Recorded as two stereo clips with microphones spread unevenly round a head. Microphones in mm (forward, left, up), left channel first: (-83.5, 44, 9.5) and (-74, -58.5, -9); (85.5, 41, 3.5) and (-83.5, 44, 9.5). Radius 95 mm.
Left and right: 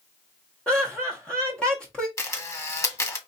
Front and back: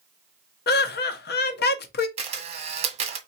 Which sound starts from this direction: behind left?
A camera shutter, at 2.2 s.